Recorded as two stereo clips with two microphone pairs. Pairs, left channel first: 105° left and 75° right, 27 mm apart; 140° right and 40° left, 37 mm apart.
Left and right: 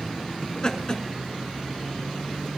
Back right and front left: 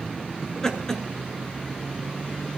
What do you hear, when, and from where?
0.4 s laughter: 155° left, 2.5 m